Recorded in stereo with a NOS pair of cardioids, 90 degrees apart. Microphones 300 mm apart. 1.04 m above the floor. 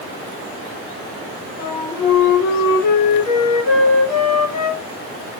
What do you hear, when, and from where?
1.6 s a flute: 65° left, 1.0 m